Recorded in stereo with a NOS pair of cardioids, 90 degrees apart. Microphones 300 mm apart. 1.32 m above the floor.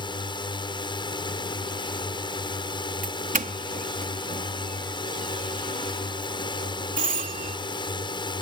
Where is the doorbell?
30° right.